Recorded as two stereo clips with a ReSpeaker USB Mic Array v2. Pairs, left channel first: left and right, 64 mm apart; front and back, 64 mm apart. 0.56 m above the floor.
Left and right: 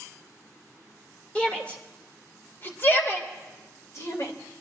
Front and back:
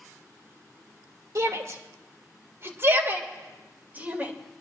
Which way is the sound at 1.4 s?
160° left.